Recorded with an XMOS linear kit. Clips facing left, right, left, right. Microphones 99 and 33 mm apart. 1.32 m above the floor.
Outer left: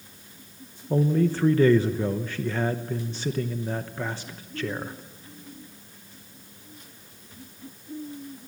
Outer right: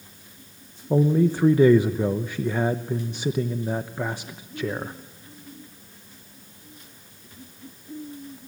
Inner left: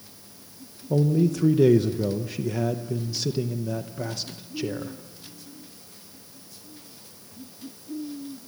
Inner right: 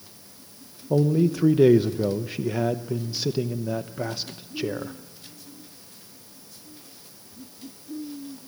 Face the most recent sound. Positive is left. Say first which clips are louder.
# outer right 3 dB, inner right 1 dB
turn(degrees=-15)  # may be behind; listen again after turning